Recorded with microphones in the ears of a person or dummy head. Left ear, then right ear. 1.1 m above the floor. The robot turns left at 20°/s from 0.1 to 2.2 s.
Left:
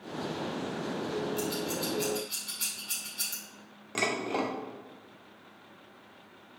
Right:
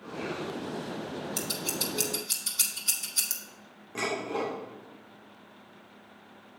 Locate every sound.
1.4 s scissors: 65° right (ahead or behind), 1.9 m; by 3.4 s 80° right, 1.9 m
4.0 s dishes clattering: 25° left (ahead or behind), 1.6 m